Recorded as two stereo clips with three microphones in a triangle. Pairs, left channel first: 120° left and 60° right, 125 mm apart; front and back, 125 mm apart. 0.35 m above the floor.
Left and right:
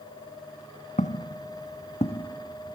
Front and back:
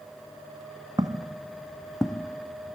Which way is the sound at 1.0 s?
120° left.